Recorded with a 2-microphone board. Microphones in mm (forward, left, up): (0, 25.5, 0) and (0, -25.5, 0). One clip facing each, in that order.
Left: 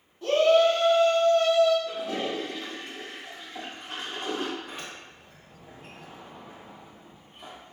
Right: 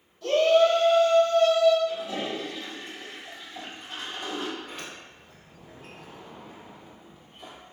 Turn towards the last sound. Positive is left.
turn(degrees=5)  # may be behind; listen again after turning